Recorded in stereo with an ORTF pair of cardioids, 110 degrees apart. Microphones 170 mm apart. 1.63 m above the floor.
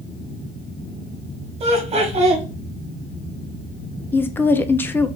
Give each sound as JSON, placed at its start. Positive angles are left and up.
{"t": 1.6, "sound": "laughter", "azimuth_deg": -35, "distance_m": 2.5}
{"t": 4.1, "sound": "a woman speaking", "azimuth_deg": 10, "distance_m": 0.7}